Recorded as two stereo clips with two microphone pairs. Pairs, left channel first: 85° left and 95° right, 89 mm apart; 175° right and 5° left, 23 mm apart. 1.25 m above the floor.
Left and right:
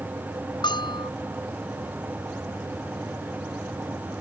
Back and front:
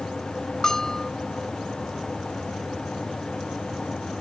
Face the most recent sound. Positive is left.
turn(degrees=115)